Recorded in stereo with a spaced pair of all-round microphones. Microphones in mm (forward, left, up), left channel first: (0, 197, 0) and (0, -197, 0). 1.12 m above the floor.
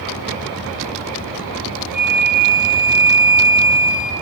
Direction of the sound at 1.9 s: 80° left.